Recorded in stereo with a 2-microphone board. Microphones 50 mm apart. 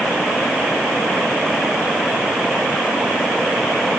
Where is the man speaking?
I don't hear a man speaking.